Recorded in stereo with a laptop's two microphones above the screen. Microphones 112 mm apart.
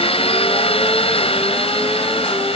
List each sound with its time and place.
0.0 s a machine running: 70° left (ahead or behind)